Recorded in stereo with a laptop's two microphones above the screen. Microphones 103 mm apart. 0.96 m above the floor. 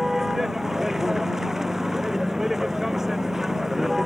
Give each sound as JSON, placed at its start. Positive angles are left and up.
{"t": 0.0, "sound": "a vehicle", "side_deg": -5}